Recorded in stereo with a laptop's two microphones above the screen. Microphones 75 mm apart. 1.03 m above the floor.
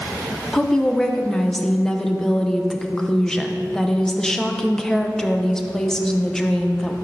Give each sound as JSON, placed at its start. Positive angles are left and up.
{"t": 0.5, "sound": "a woman speaking", "side_deg": 10, "distance_m": 0.6}